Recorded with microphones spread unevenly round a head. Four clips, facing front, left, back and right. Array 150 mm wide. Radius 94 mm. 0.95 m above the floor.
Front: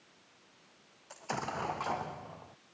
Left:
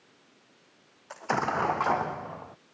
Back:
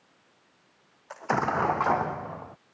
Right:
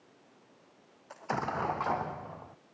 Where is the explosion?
135° left.